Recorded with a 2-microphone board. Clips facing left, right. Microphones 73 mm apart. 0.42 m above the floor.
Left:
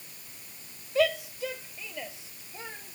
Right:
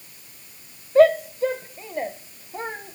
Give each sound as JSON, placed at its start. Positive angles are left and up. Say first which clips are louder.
{"t": 0.9, "sound": "a shout", "louder": "right 11 dB", "side_deg": -40}